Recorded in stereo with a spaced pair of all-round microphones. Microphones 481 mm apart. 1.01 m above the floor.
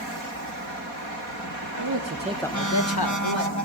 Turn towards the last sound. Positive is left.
turn(degrees=70)  # may be behind; listen again after turning